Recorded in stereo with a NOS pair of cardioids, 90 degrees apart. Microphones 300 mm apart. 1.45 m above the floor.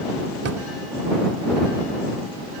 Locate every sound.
0.5 s a drawer: 55° right